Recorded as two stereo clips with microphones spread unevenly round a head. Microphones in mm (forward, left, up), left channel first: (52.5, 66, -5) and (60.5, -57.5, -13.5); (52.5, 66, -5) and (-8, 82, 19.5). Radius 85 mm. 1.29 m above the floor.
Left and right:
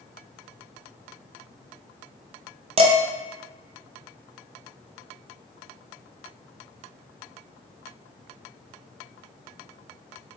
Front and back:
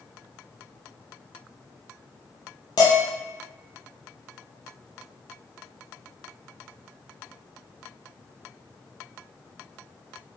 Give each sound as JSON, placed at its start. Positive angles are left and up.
{"t": 2.8, "sound": "dishes clattering", "azimuth_deg": -60, "distance_m": 0.5}